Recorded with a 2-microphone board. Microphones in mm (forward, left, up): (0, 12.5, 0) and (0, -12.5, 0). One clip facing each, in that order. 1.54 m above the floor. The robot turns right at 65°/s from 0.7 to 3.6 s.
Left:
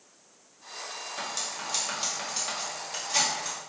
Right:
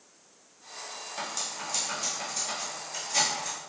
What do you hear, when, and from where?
1.2 s cutlery clinking: centre (ahead or behind), 1.6 m; by 3.6 s 20° left (ahead or behind), 1.6 m